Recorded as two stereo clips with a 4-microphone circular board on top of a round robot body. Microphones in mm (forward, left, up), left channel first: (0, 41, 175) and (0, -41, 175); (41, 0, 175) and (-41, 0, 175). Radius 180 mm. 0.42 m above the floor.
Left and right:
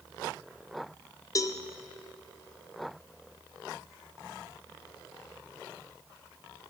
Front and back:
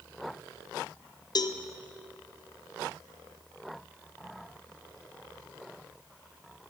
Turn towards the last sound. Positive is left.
turn(degrees=40)